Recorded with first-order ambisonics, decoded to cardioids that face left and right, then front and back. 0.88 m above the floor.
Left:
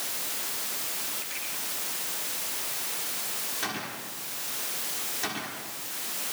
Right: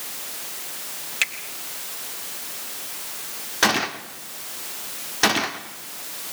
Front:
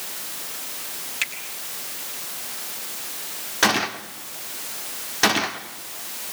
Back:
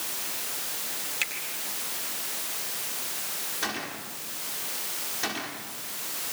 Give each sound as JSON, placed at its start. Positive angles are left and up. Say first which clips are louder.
{"t": 1.2, "sound": "a finger snap", "louder": "right 16 dB, front 4 dB", "azimuth_deg": -85, "distance_m": 4.0}
{"t": 3.6, "sound": "a gunshot", "louder": "right 18 dB, front 14 dB", "azimuth_deg": -50, "distance_m": 1.0}